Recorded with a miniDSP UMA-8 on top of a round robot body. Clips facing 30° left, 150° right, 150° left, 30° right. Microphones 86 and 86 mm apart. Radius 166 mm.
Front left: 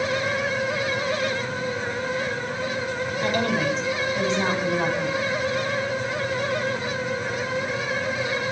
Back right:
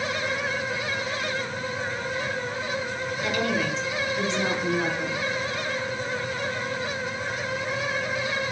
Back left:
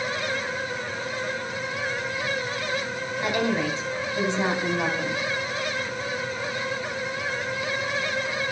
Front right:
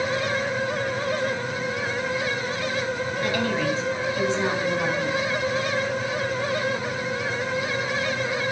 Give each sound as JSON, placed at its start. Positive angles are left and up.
{"t": 3.2, "sound": "a woman speaking", "azimuth_deg": 80, "distance_m": 4.5}